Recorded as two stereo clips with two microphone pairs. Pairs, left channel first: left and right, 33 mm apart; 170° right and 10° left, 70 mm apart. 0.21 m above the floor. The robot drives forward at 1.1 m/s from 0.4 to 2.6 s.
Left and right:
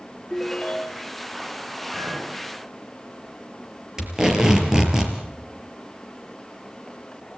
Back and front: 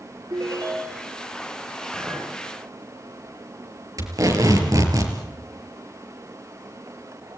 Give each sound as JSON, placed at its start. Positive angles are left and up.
{"t": 0.3, "sound": "a ringtone", "azimuth_deg": 20, "distance_m": 2.0}
{"t": 1.9, "sound": "a clink", "azimuth_deg": -45, "distance_m": 8.5}
{"t": 4.0, "sound": "tape being pulled", "azimuth_deg": -15, "distance_m": 4.0}